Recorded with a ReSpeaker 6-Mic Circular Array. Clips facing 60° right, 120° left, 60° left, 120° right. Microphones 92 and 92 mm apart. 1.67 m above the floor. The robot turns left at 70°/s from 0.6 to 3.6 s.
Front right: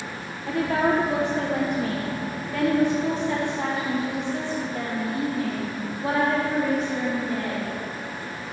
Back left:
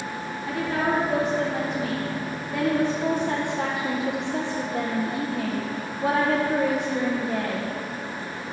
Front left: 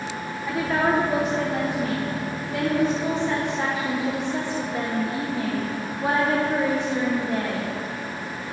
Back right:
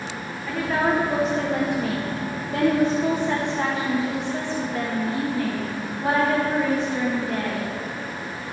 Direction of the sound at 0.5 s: 20° right.